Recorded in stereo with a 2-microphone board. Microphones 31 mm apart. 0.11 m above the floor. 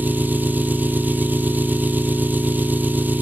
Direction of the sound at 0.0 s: 70° right (ahead or behind).